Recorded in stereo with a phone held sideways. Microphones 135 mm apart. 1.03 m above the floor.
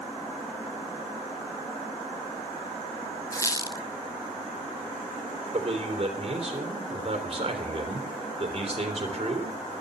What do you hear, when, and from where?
3.3 s a squeak: 25° left (ahead or behind), 0.8 m
5.5 s a man speaking: 45° right (ahead or behind), 3.5 m